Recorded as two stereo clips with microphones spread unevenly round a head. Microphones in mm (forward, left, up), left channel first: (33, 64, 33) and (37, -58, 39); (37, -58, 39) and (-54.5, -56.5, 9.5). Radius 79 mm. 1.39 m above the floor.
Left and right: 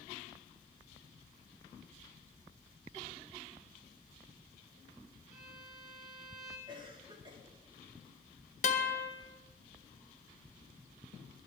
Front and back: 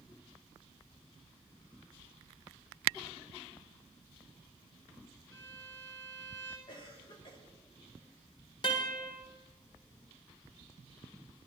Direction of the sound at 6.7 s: 35° right.